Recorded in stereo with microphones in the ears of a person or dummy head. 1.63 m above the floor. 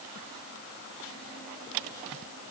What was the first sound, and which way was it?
Only background noise.